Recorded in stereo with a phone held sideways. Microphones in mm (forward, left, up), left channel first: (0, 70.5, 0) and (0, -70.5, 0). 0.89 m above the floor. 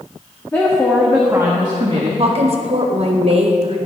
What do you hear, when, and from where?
0.5 s a woman speaking: 15° left (ahead or behind), 1.2 m; by 2.1 s 50° right (ahead or behind), 1.2 m
2.2 s a woman speaking: 55° right (ahead or behind), 0.8 m